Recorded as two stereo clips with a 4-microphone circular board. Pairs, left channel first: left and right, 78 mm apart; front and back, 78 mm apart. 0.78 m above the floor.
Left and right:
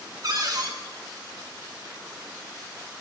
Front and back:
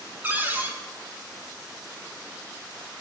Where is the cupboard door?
120° right, 0.7 m.